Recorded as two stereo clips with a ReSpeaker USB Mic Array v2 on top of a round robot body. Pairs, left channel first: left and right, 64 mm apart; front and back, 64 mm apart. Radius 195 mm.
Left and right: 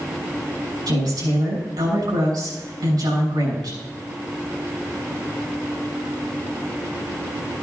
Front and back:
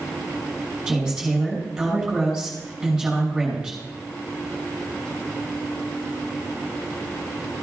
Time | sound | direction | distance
0.9 | a woman speaking | 95° right | 6 m